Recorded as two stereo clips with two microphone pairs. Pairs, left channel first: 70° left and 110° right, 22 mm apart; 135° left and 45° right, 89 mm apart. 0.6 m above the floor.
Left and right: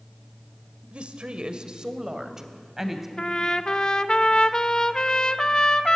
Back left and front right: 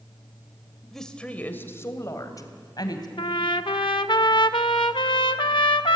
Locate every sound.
0.9 s a woman speaking: 135° right, 2 m; by 3.1 s 175° left, 3.5 m
3.2 s a trumpet: 125° left, 0.9 m